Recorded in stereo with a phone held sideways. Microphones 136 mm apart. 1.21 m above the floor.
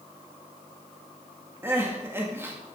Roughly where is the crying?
Centre.